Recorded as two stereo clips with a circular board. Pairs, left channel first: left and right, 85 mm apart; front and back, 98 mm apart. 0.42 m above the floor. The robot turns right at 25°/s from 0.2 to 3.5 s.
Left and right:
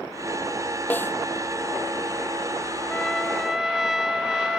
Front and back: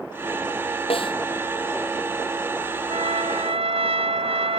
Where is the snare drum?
20° left; by 1.1 s 25° left.